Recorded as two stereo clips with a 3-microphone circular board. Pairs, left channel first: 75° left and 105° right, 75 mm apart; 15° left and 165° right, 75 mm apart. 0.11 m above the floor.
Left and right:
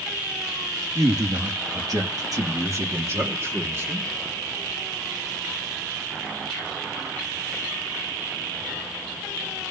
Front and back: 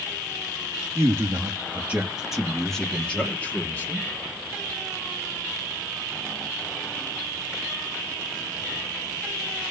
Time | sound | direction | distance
0.9 | a man speaking | 120° right | 3.5 m